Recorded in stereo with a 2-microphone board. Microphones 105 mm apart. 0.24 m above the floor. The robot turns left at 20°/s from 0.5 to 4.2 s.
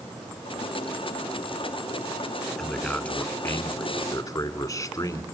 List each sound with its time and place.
2.6 s a man speaking: 175° left, 2.5 m; by 5.2 s 145° left, 2.5 m